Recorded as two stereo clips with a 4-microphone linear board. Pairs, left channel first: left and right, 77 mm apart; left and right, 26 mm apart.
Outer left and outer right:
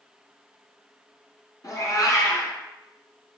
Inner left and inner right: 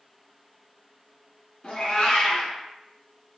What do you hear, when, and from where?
1.6 s a cat meowing: 50° left (ahead or behind), 1.3 m